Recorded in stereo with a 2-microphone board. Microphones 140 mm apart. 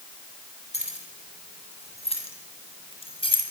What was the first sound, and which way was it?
Keys jangling, 50° left (ahead or behind).